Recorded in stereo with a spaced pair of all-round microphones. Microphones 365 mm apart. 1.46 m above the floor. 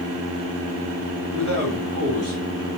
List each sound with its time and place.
1.3 s a man speaking: 65° right (ahead or behind), 4 m